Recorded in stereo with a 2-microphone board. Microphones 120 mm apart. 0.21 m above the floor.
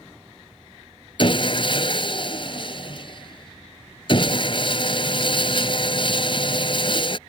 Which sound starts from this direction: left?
Sawing, at 1.2 s.